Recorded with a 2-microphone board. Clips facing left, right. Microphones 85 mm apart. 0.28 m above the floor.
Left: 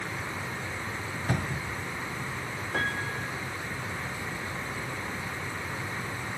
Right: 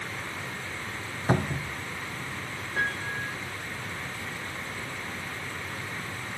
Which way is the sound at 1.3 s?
35° right (ahead or behind).